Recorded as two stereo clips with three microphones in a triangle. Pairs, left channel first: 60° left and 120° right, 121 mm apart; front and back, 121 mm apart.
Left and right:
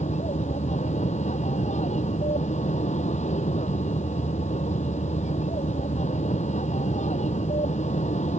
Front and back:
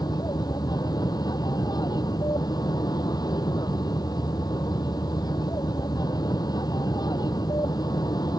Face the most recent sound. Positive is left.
turn(degrees=55)